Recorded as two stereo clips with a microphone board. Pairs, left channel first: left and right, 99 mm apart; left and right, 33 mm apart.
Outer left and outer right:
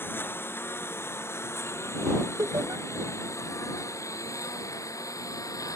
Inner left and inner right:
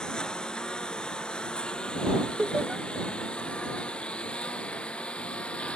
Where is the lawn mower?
20° left (ahead or behind); by 5.8 s 35° left (ahead or behind).